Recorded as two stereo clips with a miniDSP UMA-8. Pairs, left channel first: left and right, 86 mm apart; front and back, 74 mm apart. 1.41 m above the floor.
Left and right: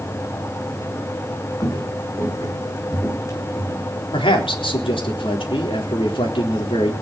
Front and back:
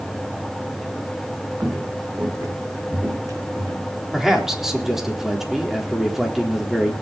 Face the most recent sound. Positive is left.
turn(degrees=95)